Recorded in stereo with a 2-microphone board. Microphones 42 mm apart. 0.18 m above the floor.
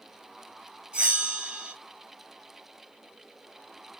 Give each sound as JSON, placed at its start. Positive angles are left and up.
{"t": 0.9, "sound": "a bell", "side_deg": -25, "distance_m": 3.0}